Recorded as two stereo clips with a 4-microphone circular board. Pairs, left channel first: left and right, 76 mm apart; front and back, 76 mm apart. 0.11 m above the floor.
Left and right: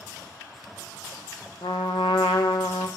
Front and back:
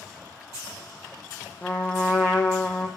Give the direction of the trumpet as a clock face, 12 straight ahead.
10 o'clock.